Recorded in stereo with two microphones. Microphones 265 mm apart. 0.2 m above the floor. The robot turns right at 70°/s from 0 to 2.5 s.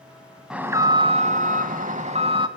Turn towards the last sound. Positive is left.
turn(degrees=-35)